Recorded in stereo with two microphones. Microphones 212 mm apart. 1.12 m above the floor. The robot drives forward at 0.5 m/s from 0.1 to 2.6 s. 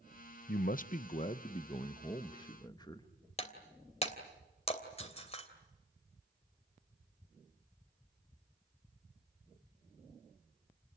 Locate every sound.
0.5 s a man speaking: 50° left (ahead or behind), 0.7 m; by 3.1 s 20° left (ahead or behind), 1.5 m
3.4 s breaking glass: 30° left (ahead or behind), 3 m